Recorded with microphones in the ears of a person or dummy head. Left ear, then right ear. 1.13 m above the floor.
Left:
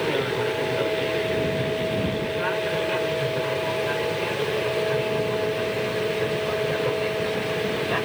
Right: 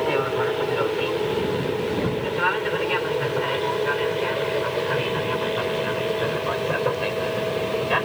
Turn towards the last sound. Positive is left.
turn(degrees=-40)  # may be behind; listen again after turning